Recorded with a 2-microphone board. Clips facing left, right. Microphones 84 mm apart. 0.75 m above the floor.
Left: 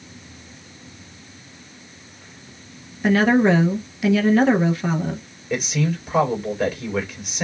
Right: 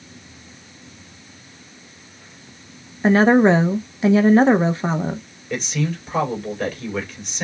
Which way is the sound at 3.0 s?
30° right (ahead or behind).